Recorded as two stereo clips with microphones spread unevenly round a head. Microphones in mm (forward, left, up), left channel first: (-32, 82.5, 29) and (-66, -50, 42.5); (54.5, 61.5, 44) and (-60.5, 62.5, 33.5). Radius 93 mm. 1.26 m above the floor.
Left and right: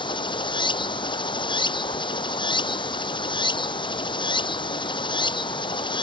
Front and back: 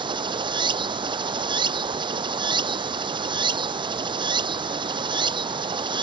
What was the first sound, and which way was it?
Running water, 130° left.